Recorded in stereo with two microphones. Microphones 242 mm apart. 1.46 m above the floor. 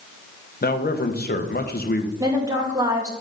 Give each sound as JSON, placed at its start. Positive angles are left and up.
{"t": 0.6, "sound": "a man speaking", "side_deg": 40, "distance_m": 1.0}
{"t": 2.2, "sound": "a woman speaking", "side_deg": -15, "distance_m": 1.8}